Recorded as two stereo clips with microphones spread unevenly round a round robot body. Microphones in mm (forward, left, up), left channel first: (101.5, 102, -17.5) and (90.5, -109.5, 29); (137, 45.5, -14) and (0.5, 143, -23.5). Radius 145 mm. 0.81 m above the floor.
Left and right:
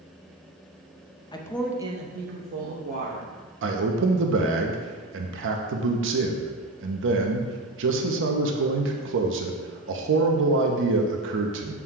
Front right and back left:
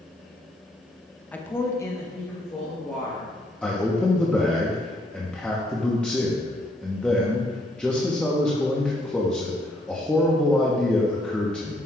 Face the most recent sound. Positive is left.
turn(degrees=-125)